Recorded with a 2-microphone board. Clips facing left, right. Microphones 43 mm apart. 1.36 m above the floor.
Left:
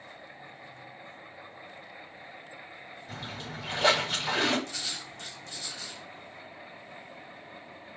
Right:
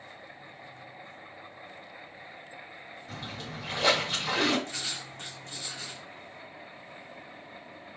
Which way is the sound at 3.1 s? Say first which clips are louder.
Even; 15° left (ahead or behind).